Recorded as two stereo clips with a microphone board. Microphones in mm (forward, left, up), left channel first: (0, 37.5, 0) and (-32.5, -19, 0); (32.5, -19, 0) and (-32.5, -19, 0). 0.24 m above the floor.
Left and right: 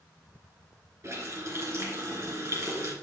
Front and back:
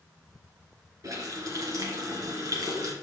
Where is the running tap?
160° right, 2.5 m.